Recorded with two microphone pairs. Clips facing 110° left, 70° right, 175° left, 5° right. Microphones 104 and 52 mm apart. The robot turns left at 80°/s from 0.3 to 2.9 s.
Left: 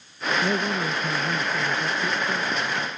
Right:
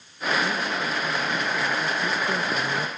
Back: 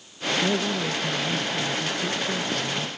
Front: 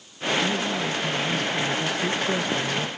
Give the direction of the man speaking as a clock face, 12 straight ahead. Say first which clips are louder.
Left 2 dB, even; 7 o'clock.